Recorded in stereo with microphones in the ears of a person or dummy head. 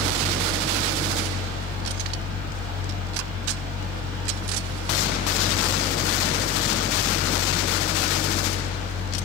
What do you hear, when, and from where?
0.0 s a fan: 20° right (ahead or behind), 1.4 m